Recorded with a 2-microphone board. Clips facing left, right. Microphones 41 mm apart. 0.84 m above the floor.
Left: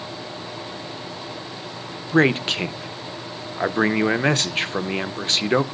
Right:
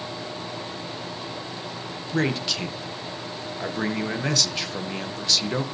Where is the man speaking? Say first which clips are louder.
Left 7 dB; 40° left (ahead or behind), 0.5 m.